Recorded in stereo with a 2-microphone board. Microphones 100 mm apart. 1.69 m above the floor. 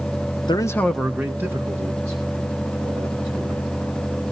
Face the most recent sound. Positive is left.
turn(degrees=-40)  # may be behind; listen again after turning